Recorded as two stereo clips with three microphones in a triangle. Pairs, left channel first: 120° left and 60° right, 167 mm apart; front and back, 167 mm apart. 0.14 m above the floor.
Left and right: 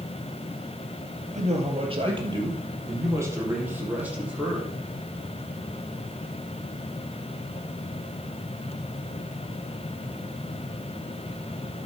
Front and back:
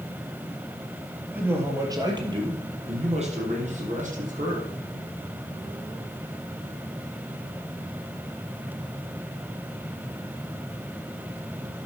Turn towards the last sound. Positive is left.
turn(degrees=-145)